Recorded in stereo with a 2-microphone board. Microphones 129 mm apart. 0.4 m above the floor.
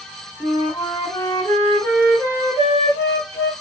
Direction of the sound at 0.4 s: 30° left (ahead or behind).